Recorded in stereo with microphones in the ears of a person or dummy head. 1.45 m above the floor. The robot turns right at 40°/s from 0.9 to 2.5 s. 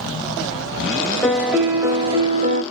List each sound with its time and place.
1.2 s a piano: 170° left, 0.5 m; by 2.6 s 140° right, 0.5 m